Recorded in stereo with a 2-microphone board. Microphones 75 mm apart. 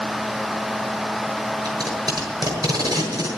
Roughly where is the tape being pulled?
Right.